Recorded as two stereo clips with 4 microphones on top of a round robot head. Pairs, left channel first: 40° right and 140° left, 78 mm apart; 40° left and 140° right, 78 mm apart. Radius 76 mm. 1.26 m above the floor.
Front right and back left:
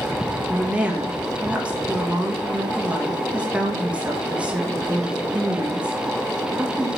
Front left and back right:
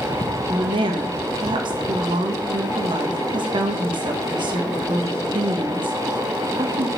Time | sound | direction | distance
0.5 | a woman speaking | 145° right | 1.7 m